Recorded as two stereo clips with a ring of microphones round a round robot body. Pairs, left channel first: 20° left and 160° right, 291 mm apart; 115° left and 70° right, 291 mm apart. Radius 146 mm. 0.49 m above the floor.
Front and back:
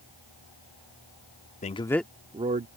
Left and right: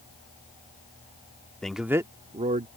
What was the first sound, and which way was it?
A man speaking, 30° left.